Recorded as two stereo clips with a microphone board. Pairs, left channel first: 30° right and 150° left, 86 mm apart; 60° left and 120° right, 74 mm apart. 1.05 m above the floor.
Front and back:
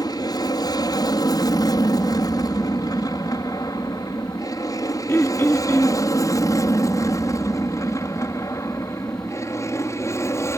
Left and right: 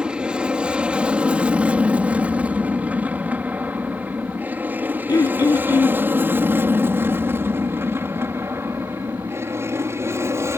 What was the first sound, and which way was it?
An aircraft, 45° right.